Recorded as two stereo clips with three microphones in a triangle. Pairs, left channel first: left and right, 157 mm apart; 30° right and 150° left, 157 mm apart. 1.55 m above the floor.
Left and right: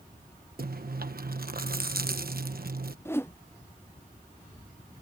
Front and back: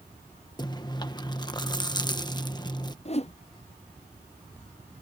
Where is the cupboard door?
No cupboard door in this recording.